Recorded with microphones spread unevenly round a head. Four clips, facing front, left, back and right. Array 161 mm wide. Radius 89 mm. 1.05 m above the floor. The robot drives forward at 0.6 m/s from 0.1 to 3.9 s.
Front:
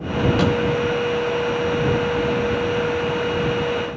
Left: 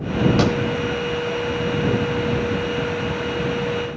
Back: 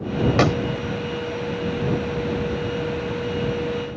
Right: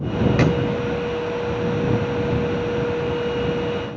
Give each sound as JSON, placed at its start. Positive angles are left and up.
{"t": 0.4, "sound": "a clap", "azimuth_deg": -170}